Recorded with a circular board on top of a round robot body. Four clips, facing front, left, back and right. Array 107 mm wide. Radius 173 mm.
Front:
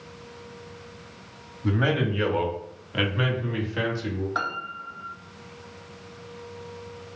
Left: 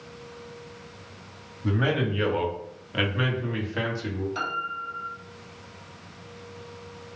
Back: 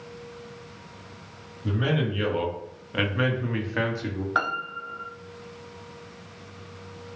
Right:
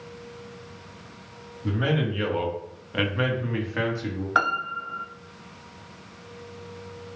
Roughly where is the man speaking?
Ahead.